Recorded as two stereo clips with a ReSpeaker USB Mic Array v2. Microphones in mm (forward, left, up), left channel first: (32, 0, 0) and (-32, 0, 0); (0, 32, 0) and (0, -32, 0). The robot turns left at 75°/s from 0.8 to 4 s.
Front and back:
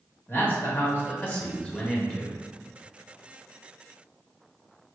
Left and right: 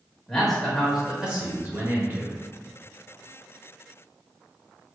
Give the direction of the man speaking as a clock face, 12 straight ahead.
12 o'clock.